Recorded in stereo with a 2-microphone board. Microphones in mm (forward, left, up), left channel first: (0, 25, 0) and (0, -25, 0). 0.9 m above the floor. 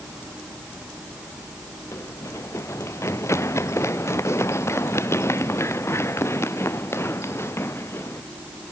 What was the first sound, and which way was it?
Running footsteps, 70° left (ahead or behind).